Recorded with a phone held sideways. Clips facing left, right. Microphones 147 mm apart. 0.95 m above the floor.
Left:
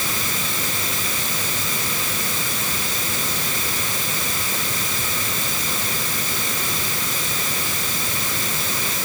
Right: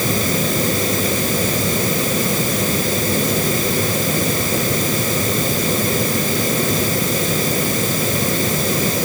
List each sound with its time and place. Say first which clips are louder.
0.0 s a fan: right 10 dB; 45° right (ahead or behind)